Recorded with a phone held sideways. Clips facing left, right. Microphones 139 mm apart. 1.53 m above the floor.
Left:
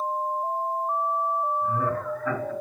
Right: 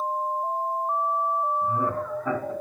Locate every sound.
1.6 s laughter: 20° right (ahead or behind), 2 m